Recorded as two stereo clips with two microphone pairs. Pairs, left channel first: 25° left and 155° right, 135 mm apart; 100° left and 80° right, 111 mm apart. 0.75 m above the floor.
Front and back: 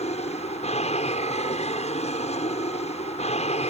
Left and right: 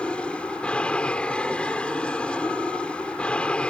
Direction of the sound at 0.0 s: 20° left.